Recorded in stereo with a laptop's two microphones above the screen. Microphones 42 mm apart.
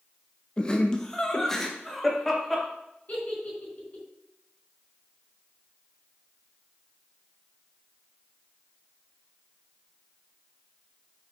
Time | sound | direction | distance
0.6 | laughter | 20° left (ahead or behind) | 1.0 m
3.1 | a giggle | 40° left (ahead or behind) | 3 m